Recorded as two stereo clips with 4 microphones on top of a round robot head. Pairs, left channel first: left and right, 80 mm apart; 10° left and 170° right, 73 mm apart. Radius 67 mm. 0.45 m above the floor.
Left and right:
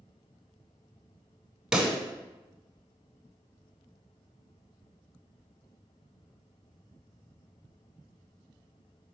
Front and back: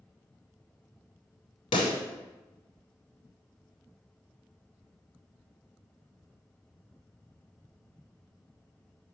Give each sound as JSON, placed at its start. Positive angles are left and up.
{"t": 1.7, "sound": "a pop", "azimuth_deg": -5, "distance_m": 0.6}